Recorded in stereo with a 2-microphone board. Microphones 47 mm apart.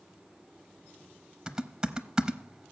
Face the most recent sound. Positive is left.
turn(degrees=-15)  # may be behind; listen again after turning